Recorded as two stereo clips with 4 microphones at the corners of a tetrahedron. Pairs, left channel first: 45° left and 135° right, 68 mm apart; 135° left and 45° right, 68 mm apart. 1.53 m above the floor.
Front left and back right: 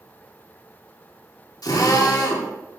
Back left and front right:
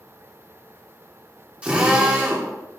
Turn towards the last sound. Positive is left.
turn(degrees=25)